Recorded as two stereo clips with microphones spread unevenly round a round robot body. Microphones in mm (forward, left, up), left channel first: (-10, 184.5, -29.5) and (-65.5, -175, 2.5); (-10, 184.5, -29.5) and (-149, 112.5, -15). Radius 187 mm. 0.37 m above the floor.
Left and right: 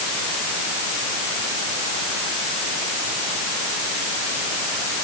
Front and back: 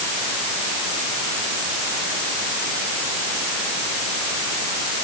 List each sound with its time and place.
Only background noise.